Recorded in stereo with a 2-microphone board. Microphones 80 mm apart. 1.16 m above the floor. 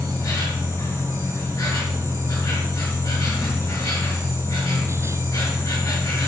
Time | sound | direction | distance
0.0 | an insect | 35° left (ahead or behind) | 4.5 m